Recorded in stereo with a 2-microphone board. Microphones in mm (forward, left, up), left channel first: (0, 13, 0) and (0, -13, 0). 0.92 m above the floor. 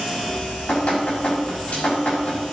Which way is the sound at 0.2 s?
75° left (ahead or behind).